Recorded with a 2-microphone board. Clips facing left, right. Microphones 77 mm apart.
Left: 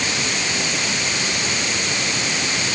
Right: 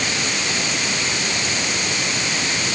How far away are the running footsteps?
I don't hear running footsteps.